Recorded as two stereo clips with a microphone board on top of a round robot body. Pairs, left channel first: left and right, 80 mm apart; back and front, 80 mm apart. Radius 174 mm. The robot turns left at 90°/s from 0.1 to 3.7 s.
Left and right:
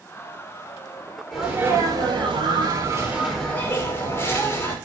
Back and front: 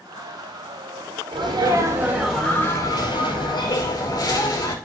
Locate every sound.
1.3 s a sneeze: 5° left, 6 m; by 4.7 s 150° left, 6 m